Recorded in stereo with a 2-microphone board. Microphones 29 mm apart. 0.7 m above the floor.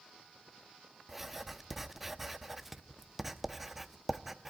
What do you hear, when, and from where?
1.1 s writing: 5° right (ahead or behind), 0.7 m